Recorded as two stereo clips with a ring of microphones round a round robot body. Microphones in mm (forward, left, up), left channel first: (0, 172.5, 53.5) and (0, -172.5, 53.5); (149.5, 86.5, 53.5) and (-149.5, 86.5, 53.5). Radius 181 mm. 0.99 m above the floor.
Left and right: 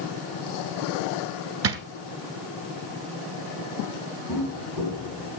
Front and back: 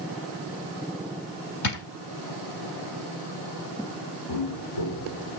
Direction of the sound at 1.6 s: 40° right.